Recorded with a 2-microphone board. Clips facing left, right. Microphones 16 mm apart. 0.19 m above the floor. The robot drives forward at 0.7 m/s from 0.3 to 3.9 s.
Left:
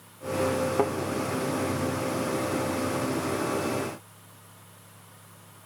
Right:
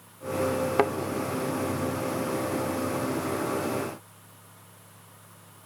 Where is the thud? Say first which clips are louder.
Right 3 dB; 75° right (ahead or behind), 0.5 m; by 0.9 s 65° right (ahead or behind), 0.6 m.